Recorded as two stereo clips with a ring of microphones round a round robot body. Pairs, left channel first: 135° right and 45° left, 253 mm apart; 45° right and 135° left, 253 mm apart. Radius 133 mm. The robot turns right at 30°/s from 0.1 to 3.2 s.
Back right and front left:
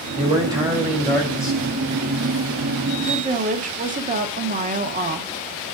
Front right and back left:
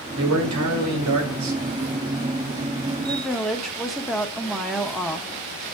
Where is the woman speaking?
40° left, 0.8 m; by 5.3 s 45° left, 0.8 m.